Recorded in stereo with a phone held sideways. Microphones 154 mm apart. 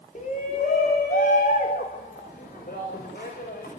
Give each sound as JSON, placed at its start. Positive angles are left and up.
{"t": 0.1, "sound": "a shout", "side_deg": 55, "distance_m": 3.0}